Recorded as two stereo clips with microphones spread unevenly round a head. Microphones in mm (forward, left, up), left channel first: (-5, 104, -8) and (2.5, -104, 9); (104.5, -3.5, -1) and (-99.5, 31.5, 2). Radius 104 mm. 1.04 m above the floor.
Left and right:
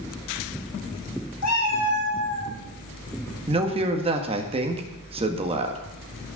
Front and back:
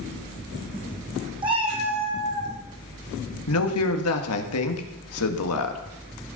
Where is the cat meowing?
105° left, 3.5 m; by 2.5 s 115° left, 4 m.